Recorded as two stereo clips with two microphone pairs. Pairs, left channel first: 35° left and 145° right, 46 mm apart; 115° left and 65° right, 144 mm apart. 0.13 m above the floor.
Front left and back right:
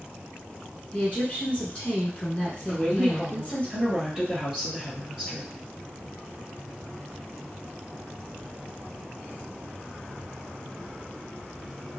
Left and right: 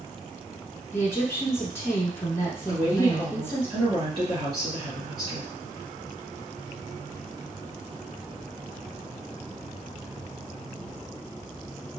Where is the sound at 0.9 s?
55° left, 1.1 m.